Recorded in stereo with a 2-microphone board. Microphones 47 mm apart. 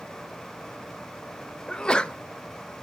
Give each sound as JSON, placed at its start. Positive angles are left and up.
{"t": 1.7, "sound": "a sneeze", "side_deg": 20, "distance_m": 0.6}